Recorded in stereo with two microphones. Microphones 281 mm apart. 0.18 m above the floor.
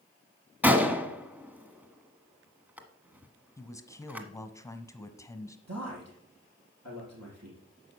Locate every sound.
0.6 s a gunshot: 5° right (ahead or behind), 1.4 m
3.6 s a man speaking: 10° left (ahead or behind), 1.1 m
5.7 s a man speaking: 80° right, 5.5 m